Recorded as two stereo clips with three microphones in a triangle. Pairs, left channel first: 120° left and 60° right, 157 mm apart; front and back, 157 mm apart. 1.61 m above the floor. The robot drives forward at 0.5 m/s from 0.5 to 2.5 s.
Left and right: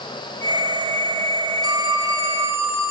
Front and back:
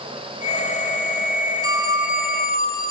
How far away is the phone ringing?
About 2.0 m.